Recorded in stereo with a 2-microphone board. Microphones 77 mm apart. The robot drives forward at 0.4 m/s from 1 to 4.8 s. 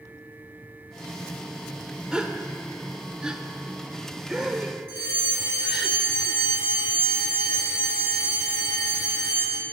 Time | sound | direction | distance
2.1 | a gasp | 10° right (ahead or behind) | 1.1 m
4.9 | a fire alarm | 30° right (ahead or behind) | 7 m